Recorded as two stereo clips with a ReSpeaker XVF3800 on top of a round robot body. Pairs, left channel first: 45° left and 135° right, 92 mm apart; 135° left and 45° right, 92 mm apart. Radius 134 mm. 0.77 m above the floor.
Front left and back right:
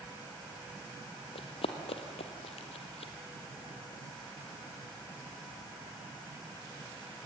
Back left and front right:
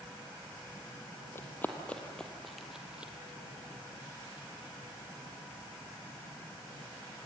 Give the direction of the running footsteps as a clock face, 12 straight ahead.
10 o'clock.